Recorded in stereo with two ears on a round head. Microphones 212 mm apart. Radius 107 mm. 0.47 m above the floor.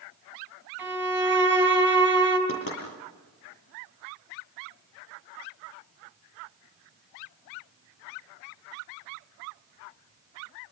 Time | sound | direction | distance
0.8 | a violin | 10° right (ahead or behind) | 4.5 m
2.5 | knocking | 60° left (ahead or behind) | 8.5 m